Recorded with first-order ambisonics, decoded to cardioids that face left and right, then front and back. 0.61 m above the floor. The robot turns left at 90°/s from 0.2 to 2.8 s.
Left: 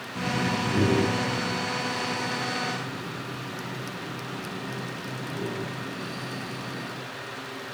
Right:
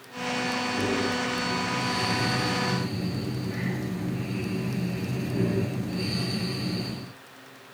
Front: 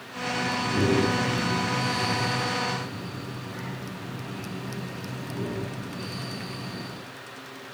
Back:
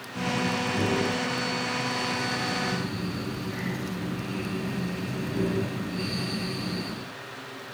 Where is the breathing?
115° left, 4.5 m; by 7.1 s 115° right, 4.5 m.